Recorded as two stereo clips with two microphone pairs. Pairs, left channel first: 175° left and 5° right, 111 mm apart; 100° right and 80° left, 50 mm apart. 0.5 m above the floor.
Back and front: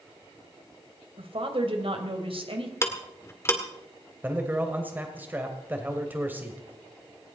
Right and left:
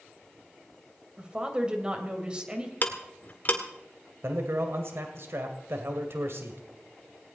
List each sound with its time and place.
1.2 s a woman speaking: 15° left, 2.5 m
2.8 s ticking: 130° right, 1.8 m
4.2 s a man speaking: 65° left, 2 m